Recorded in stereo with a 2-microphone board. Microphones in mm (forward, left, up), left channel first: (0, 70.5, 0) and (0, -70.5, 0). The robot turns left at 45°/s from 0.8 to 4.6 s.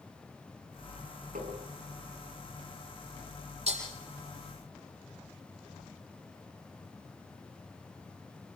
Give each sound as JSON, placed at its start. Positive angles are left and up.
{"t": 1.4, "sound": "tapping", "side_deg": -85, "distance_m": 7.0}
{"t": 3.7, "sound": "breaking glass", "side_deg": -55, "distance_m": 8.5}